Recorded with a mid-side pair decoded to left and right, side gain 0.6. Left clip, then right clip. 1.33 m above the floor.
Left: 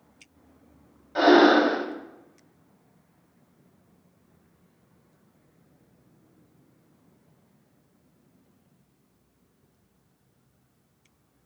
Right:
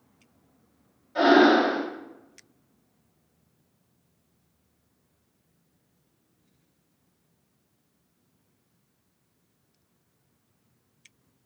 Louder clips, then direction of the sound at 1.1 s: Left 1 dB; 40° left.